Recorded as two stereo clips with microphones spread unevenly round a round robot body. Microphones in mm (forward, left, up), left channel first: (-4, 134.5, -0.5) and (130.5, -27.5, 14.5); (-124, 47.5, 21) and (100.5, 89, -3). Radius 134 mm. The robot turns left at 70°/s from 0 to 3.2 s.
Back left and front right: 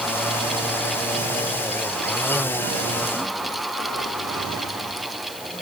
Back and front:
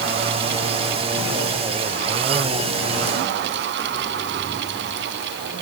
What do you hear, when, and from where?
Only background noise.